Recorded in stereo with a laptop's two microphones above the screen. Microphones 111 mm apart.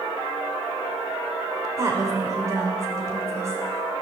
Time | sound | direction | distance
1.8 | a woman speaking | 30° right (ahead or behind) | 3.5 m